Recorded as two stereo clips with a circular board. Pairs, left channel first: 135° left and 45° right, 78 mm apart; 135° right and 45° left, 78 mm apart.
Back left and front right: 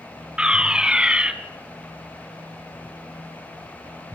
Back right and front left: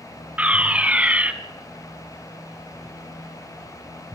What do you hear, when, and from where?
0.4 s a fire alarm: 10° left, 2.0 m